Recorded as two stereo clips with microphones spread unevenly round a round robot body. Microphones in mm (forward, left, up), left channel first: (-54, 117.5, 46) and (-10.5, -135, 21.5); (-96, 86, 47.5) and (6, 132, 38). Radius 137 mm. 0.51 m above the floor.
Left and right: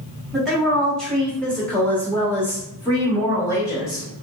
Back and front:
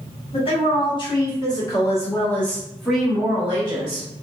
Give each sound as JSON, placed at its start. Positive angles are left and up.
{"t": 0.3, "sound": "a woman speaking", "azimuth_deg": -165, "distance_m": 1.6}